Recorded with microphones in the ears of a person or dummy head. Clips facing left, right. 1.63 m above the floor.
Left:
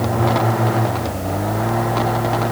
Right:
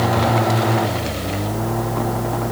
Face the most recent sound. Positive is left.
No sound to turn to.